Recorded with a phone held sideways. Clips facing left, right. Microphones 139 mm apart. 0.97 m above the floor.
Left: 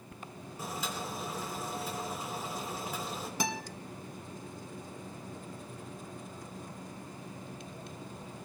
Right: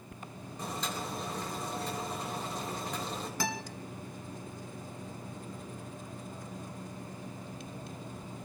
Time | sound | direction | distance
0.6 | boiling | 5° left (ahead or behind) | 4.5 m
3.4 | a guitar | 15° left (ahead or behind) | 1.6 m